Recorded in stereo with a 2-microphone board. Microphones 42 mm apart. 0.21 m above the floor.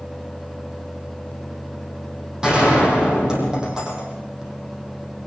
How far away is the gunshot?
About 8 m.